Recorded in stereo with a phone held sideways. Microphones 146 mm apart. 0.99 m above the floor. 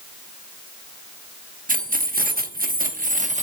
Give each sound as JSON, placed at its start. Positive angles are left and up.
{"t": 1.7, "sound": "keys jangling", "side_deg": -70, "distance_m": 1.0}